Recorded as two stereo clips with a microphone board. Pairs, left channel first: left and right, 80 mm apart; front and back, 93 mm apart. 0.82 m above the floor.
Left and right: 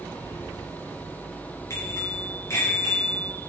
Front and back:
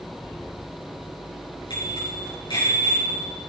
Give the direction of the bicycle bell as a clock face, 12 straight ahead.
11 o'clock.